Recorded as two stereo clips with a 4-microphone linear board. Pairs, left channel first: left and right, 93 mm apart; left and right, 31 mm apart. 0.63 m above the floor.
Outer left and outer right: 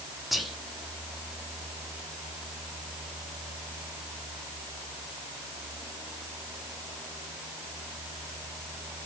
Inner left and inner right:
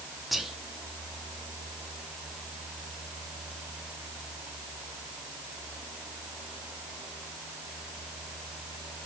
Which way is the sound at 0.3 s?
Centre (ahead or behind).